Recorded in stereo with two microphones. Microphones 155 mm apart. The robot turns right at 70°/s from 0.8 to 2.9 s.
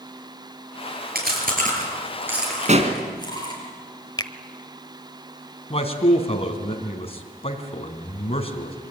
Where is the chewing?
80° right, 7 m; by 3.7 s 30° left (ahead or behind), 7 m.